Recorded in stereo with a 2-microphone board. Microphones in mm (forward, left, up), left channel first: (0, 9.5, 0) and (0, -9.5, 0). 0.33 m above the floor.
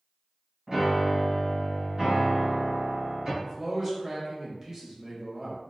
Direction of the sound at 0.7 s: 35° right (ahead or behind).